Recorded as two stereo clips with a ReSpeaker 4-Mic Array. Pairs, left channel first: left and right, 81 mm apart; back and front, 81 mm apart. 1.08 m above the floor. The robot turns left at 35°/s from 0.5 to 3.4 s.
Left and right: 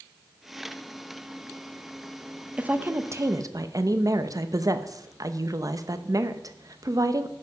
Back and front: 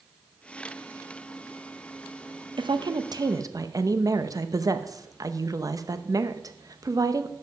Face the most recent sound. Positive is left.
turn(degrees=-45)